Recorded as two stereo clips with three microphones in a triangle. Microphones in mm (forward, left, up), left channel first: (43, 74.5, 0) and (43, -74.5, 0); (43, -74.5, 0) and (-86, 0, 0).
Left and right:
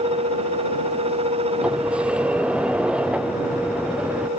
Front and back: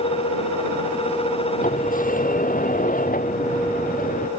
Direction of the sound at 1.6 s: 10° right.